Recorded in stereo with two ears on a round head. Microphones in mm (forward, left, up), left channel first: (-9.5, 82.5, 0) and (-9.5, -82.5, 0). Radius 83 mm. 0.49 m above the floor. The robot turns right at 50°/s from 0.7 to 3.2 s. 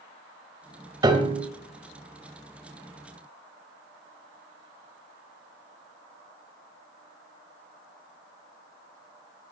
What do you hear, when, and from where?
1.0 s a piano: 20° right (ahead or behind), 1.6 m; by 1.5 s 40° right (ahead or behind), 1.6 m